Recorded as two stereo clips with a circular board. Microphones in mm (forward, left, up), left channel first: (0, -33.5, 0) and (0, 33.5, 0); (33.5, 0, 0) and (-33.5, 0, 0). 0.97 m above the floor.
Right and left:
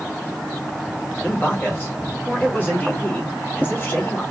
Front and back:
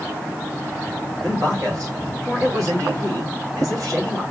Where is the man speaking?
150° right, 2 m.